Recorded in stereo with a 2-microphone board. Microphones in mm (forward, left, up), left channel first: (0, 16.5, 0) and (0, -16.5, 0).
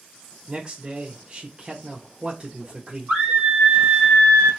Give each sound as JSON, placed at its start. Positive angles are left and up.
{"t": 0.5, "sound": "a man speaking", "side_deg": -30, "distance_m": 0.9}
{"t": 3.1, "sound": "a scream", "side_deg": -50, "distance_m": 3.5}